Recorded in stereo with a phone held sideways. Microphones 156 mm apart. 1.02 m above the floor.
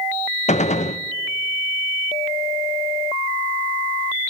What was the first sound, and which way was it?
A gunshot, 45° left (ahead or behind).